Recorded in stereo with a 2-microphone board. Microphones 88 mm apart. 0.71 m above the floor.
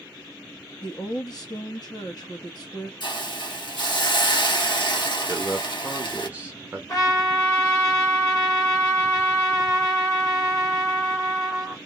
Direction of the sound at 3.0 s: 65° left (ahead or behind).